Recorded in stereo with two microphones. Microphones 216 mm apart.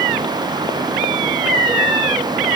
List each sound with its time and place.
Only background noise.